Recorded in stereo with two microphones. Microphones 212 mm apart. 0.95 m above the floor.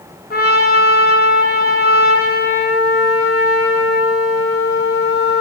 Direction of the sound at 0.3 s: 50° left (ahead or behind).